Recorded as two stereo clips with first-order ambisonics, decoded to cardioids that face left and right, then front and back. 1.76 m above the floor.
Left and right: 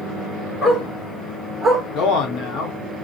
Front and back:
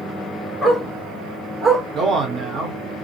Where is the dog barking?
75° left, 1.4 m; by 1.8 s 165° right, 1.4 m.